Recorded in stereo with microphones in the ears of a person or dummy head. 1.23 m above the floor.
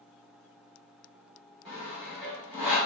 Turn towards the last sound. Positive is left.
turn(degrees=5)  # may be behind; listen again after turning